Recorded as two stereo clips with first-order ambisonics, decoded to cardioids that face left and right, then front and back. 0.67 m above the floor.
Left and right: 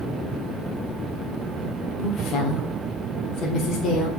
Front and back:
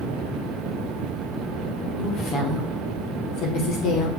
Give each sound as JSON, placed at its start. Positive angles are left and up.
{"t": 2.0, "sound": "a woman speaking", "azimuth_deg": 40, "distance_m": 2.5}